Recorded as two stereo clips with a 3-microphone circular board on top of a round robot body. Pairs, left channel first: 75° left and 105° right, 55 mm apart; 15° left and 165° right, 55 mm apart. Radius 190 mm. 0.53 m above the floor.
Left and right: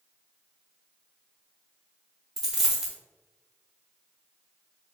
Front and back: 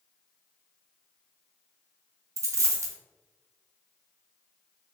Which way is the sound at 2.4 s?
170° left.